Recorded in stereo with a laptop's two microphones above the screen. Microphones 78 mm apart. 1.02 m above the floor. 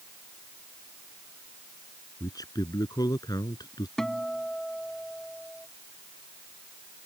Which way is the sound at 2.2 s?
55° left (ahead or behind).